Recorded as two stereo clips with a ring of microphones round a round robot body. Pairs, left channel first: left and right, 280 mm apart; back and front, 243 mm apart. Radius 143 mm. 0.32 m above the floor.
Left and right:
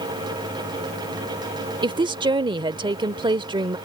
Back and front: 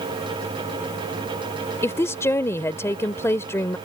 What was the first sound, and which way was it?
A woman speaking, 125° right.